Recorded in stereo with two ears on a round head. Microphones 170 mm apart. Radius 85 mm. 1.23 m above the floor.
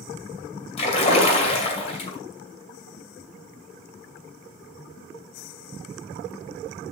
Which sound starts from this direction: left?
A splash, at 0.8 s.